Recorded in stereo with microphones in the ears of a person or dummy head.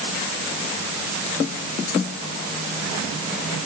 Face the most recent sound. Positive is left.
No sound to turn to.